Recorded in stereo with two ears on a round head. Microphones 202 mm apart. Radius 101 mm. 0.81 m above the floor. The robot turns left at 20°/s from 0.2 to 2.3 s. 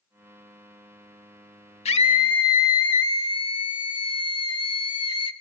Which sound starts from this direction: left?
A scream, at 1.9 s.